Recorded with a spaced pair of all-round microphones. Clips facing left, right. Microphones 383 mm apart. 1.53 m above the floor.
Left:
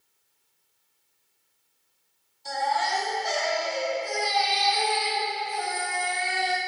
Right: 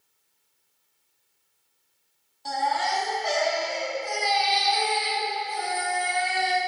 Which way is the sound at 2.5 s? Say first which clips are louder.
Right 1 dB; 70° right (ahead or behind).